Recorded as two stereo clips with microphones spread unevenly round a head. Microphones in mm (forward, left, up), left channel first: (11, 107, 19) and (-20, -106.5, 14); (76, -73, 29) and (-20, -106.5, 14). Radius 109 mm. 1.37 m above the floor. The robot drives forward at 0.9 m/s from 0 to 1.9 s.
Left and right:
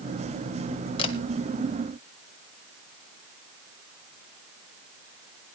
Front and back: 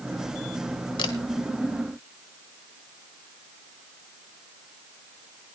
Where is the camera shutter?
20° left, 1.6 m; by 1.1 s 25° left, 1.5 m.